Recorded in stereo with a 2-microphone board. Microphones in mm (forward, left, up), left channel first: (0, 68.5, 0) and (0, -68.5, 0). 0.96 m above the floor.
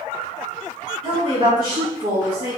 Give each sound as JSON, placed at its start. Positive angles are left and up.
{"t": 1.0, "sound": "a woman speaking", "side_deg": -60, "distance_m": 1.6}